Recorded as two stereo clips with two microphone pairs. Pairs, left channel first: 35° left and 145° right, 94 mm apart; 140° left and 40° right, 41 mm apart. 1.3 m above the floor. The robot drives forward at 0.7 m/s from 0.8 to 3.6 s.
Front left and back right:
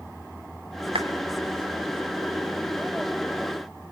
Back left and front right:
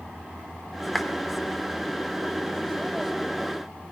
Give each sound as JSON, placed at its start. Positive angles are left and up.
{"t": 0.9, "sound": "a clap", "azimuth_deg": -140, "distance_m": 3.0}